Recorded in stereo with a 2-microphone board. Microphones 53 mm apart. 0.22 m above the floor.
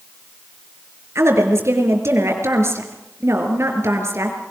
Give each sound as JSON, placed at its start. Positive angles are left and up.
{"t": 1.1, "sound": "a woman speaking", "side_deg": -60, "distance_m": 4.5}